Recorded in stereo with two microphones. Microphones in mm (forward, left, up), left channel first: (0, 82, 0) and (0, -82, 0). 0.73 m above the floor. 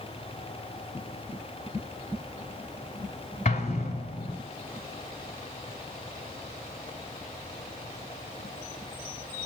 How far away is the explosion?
About 1.8 m.